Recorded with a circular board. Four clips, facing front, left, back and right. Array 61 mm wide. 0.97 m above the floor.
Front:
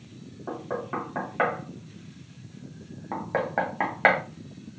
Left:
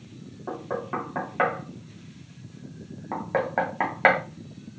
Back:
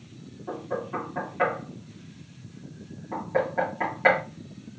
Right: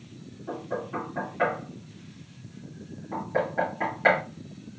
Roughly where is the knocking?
Ahead left.